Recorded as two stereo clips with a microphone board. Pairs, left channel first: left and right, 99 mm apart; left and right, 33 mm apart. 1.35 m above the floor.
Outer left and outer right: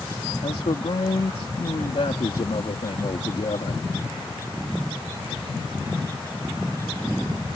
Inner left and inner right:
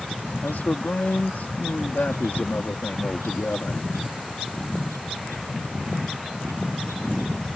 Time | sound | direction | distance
0.4 | a man speaking | 75° left (ahead or behind) | ?